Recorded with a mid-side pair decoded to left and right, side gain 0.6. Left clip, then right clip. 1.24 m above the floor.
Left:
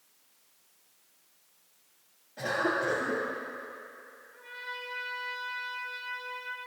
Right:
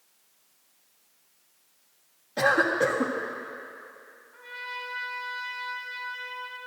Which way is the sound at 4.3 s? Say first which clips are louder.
Right 4 dB; 20° right.